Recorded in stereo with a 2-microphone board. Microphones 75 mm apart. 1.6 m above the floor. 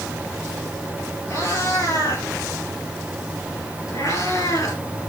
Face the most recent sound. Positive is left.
turn(degrees=45)  # may be behind; listen again after turning